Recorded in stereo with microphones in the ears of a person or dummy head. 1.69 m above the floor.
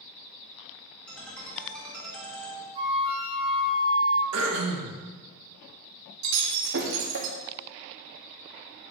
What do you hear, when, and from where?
1.1 s a ringtone: 5° left (ahead or behind), 2 m
2.8 s a flute: 30° right (ahead or behind), 1.5 m
4.3 s throat clearing: 85° right, 2.0 m
6.2 s breaking glass: 60° right (ahead or behind), 1.7 m